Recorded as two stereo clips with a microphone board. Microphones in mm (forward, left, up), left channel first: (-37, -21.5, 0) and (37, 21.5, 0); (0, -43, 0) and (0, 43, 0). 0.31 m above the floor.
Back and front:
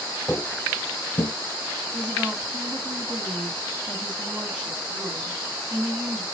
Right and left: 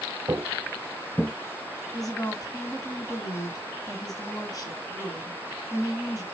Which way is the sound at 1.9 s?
50° right.